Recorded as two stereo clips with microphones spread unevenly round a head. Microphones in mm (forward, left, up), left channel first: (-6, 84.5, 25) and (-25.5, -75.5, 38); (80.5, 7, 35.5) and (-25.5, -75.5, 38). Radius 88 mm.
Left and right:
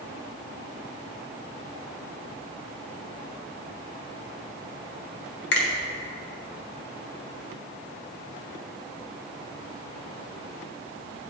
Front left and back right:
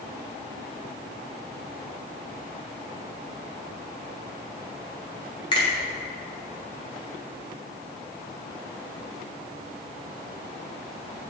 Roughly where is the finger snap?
Left.